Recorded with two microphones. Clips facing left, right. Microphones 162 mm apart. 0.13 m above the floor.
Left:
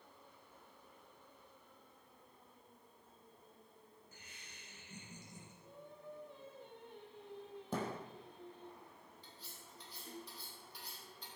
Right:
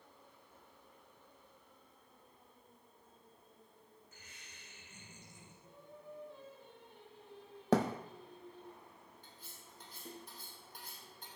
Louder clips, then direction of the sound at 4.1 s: Even; 30° left (ahead or behind).